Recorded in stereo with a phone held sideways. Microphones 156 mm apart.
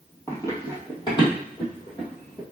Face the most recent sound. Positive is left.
turn(degrees=35)  # may be behind; listen again after turning